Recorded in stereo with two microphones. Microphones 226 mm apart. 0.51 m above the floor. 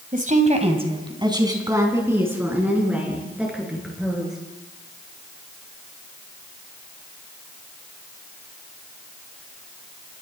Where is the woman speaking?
40° right (ahead or behind), 3 m; by 4.3 s centre (ahead or behind), 8.5 m.